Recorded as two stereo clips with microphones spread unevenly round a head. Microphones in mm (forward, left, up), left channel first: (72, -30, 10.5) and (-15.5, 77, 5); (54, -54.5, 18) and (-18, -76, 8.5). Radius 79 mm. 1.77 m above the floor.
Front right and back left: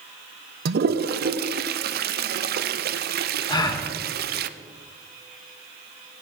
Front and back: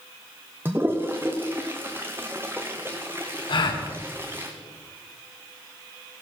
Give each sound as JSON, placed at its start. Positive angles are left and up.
{"t": 0.7, "sound": "a toilet flushing", "azimuth_deg": 120, "distance_m": 0.8}
{"t": 3.5, "sound": "a gasp", "azimuth_deg": 10, "distance_m": 2.0}